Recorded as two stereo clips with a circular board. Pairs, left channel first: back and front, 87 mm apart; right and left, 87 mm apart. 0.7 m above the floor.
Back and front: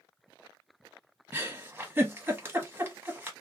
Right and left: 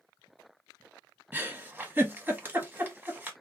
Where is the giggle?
40° left, 0.9 m.